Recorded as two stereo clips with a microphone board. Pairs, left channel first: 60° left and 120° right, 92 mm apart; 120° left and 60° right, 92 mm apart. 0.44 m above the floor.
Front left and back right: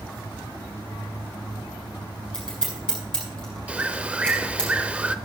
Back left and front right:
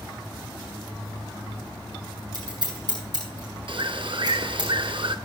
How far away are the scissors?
About 7 m.